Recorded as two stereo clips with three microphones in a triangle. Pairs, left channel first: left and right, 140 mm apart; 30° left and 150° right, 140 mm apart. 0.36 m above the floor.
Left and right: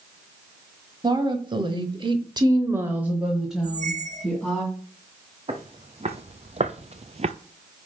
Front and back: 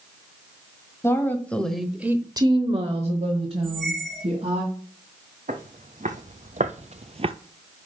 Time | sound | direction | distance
1.0 | a woman speaking | 40° right | 1.7 m
3.6 | a squeak | 60° right | 1.8 m
5.5 | footsteps | 130° right | 1.4 m